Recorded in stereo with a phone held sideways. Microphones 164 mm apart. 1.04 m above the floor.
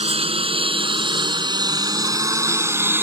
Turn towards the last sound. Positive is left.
turn(degrees=-15)  # may be behind; listen again after turning